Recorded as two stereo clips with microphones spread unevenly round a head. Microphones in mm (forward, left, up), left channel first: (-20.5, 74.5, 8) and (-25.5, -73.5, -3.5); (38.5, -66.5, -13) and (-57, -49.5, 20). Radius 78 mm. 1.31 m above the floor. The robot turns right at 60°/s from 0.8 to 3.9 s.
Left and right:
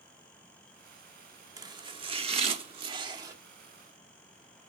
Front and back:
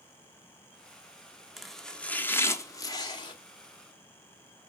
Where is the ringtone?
I don't hear a ringtone.